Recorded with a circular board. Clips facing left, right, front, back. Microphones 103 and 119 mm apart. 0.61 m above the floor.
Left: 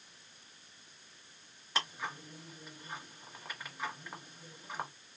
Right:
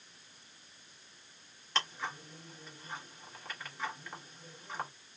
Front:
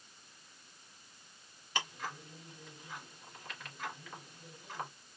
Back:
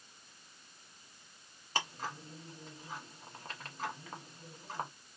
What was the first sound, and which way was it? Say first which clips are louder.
Ticking: right 1 dB, back 1 dB; 165° left.